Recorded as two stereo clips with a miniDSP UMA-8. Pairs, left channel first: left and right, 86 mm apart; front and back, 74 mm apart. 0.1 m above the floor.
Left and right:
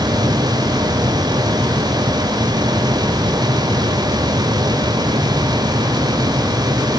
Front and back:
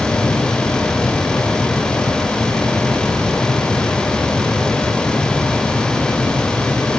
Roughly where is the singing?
No singing in this recording.